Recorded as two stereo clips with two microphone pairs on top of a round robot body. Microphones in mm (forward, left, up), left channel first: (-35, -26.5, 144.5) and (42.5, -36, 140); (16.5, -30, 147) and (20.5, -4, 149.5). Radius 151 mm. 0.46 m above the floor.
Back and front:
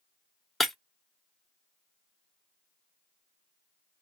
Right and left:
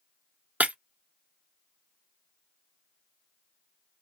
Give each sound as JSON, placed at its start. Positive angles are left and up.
{"t": 0.6, "sound": "breaking glass", "azimuth_deg": 85, "distance_m": 0.6}